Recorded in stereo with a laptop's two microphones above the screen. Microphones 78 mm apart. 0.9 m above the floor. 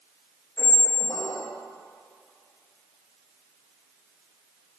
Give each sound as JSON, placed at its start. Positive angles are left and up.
{"t": 0.6, "sound": "a squeak", "side_deg": 60, "distance_m": 0.6}